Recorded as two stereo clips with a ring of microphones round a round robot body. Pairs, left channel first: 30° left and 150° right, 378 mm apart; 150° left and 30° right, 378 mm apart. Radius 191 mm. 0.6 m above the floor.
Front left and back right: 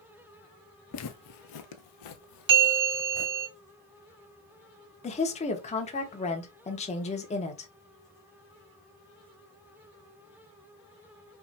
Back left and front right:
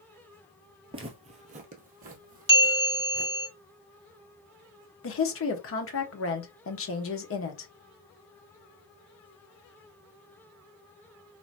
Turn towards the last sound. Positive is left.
turn(degrees=100)